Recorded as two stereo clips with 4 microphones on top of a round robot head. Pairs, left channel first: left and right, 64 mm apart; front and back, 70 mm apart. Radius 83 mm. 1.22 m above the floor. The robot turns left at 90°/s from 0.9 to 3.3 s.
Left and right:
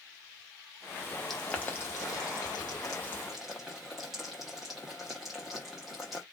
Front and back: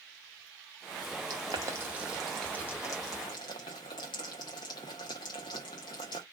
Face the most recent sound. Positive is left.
turn(degrees=0)